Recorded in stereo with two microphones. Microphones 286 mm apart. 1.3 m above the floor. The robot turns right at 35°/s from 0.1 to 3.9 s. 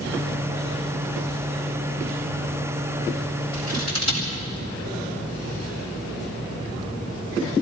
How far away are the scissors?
About 7.5 m.